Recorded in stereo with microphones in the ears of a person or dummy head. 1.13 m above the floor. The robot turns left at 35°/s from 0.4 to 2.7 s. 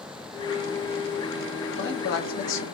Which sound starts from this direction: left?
A man speaking, at 1.7 s.